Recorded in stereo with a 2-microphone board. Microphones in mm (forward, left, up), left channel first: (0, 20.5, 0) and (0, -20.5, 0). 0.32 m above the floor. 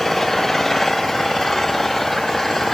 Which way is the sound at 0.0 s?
5° left (ahead or behind).